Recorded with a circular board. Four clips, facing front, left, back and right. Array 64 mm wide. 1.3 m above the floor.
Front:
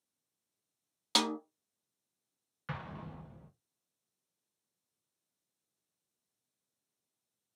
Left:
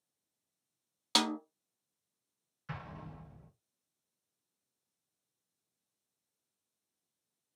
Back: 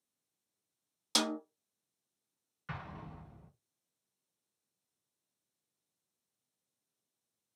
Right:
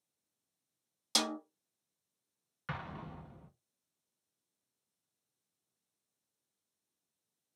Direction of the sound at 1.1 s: 50° left.